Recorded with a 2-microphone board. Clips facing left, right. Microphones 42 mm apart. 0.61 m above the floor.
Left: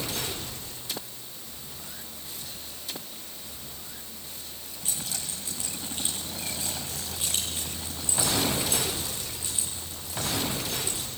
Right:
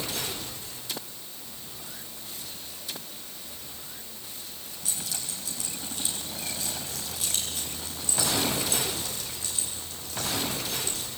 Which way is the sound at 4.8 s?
40° left (ahead or behind).